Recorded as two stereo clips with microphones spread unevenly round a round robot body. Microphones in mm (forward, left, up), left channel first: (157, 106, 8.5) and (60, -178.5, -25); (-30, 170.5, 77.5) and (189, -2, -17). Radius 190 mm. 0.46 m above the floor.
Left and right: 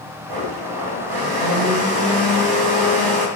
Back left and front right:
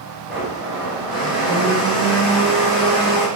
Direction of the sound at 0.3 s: 120° right.